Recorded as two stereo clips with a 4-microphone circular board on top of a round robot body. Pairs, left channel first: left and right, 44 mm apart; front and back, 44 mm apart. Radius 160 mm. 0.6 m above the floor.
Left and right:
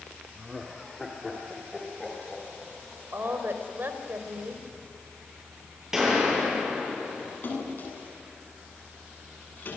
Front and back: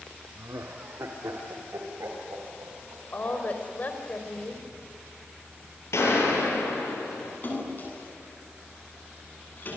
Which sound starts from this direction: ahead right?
A woman speaking, at 3.1 s.